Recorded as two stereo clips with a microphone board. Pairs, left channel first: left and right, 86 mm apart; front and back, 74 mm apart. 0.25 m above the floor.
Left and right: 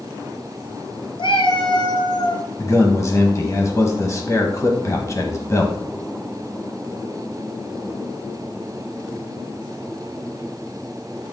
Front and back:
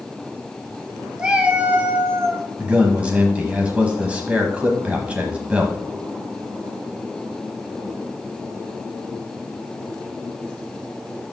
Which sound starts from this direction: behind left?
A man speaking, at 2.6 s.